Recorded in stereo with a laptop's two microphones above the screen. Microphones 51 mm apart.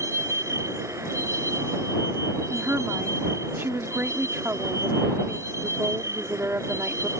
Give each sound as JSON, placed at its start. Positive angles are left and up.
{"t": 0.0, "sound": "a vehicle", "side_deg": -75}
{"t": 2.5, "sound": "a woman speaking", "side_deg": -55}